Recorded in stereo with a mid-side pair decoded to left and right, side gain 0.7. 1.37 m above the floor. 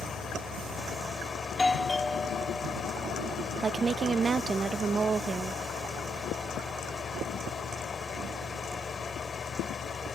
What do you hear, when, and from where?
0.0 s a fan: 25° left
1.4 s a doorbell: 10° left
3.6 s a woman speaking: 30° right